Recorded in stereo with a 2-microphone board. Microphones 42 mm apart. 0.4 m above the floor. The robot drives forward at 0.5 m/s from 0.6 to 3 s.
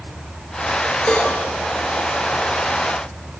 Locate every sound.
1.1 s a cowbell: 25° left (ahead or behind), 7.5 m